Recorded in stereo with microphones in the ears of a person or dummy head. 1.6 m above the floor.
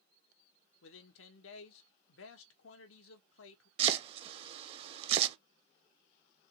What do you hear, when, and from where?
0.8 s a man speaking: 85° left, 1.1 m
3.8 s chopping: 35° right (ahead or behind), 0.7 m